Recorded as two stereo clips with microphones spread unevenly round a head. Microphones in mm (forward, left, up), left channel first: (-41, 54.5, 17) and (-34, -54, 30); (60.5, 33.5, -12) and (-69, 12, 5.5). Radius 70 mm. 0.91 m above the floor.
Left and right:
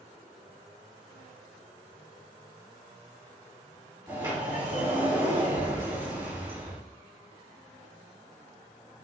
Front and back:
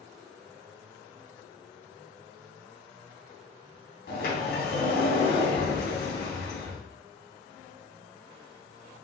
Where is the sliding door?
15° right, 4 m.